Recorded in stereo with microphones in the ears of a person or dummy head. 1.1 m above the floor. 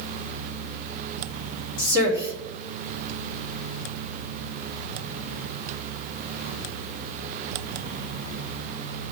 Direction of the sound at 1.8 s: 60° left (ahead or behind).